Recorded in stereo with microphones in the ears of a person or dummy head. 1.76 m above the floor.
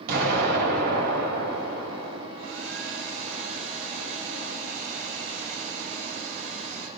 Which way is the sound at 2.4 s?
80° right.